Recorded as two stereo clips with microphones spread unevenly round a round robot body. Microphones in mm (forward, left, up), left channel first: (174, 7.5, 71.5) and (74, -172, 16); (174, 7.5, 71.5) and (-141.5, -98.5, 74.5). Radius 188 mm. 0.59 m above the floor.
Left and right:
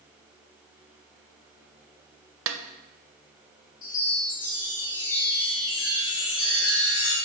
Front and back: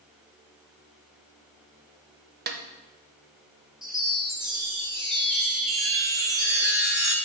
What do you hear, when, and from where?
2.5 s a snare drum: 100° right, 0.5 m
3.8 s a chime: 110° left, 0.8 m